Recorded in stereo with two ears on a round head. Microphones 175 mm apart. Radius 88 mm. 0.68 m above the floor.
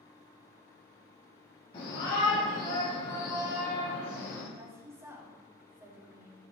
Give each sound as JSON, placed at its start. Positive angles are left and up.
{"t": 1.7, "sound": "a shout", "side_deg": 30, "distance_m": 4.5}
{"t": 4.5, "sound": "a woman speaking", "side_deg": -15, "distance_m": 4.5}